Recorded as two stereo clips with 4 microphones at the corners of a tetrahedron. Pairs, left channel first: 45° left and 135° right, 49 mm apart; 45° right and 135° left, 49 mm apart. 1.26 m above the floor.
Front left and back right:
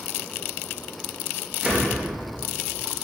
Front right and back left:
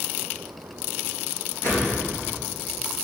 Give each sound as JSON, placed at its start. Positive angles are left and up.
{"t": 1.6, "sound": "a whoosh", "azimuth_deg": -70, "distance_m": 3.5}